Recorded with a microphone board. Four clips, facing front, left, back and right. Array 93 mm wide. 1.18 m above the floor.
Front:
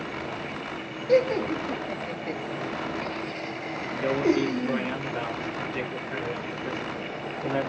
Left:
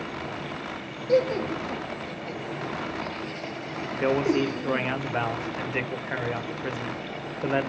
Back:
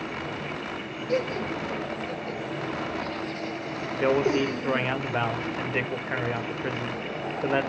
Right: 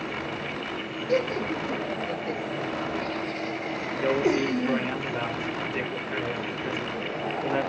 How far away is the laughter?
About 1.4 m.